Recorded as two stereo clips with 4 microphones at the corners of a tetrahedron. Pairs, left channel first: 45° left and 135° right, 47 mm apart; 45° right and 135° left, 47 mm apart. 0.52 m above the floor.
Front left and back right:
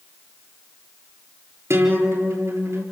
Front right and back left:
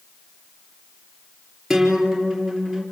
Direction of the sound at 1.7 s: 140° right.